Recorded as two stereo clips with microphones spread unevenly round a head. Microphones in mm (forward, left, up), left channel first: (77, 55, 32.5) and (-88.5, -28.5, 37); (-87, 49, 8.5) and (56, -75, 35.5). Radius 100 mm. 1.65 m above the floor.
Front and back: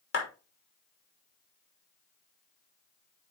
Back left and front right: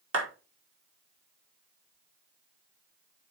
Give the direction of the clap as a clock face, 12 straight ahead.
1 o'clock.